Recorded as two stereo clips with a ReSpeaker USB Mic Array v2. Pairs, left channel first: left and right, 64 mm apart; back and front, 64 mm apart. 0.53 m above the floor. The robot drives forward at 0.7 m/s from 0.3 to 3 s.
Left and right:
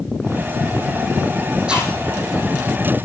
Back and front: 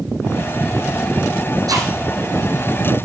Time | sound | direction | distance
1.7 | chewing | 20° right | 7.5 m